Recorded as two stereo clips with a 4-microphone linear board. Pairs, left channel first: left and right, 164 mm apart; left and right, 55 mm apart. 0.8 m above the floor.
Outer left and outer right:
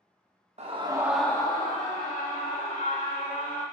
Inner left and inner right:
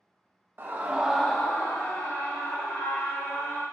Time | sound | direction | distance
0.6 | a scream | 45° right (ahead or behind) | 0.8 m